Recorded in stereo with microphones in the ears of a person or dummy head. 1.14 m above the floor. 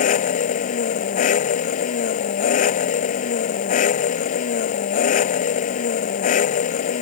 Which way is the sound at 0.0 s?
40° left (ahead or behind).